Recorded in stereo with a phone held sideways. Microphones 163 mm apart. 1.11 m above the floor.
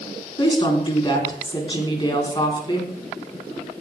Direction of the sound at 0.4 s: 35° left (ahead or behind).